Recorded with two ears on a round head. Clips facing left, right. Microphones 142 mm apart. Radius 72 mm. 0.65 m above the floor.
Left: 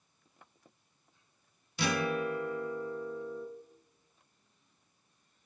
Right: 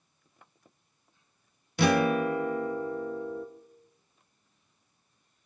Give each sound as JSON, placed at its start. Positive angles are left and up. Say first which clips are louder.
{"t": 1.8, "sound": "a guitar", "louder": "right 8 dB", "side_deg": -45, "distance_m": 0.6}